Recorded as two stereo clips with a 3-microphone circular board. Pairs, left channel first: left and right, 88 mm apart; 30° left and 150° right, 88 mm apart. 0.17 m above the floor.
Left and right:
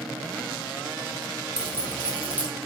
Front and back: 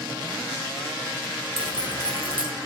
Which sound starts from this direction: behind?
Keys jangling, at 1.6 s.